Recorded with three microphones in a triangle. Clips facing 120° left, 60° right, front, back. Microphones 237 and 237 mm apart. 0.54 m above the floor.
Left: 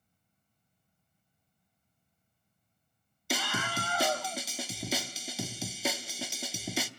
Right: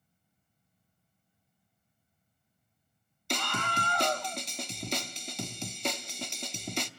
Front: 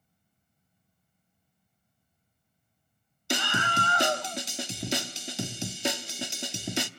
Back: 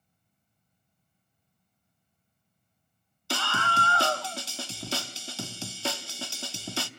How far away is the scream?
About 0.6 m.